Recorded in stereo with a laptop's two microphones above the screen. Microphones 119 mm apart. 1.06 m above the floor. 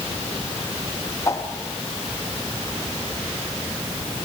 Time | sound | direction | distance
1.2 | a whoosh | 25° left (ahead or behind) | 2 m